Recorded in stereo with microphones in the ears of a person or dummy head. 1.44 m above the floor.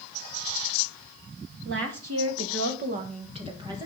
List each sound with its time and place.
1.6 s a woman speaking: 80° right, 1.4 m; by 3.9 s 15° right (ahead or behind), 2.5 m